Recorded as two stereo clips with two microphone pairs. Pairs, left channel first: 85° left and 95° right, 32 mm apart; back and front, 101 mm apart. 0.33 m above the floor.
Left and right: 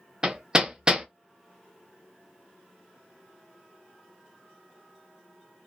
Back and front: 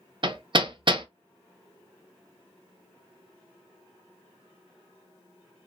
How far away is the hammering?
About 0.5 m.